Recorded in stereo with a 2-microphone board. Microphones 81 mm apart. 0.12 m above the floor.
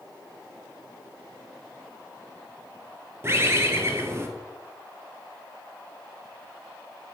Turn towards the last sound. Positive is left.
turn(degrees=-30)  # may be behind; listen again after turning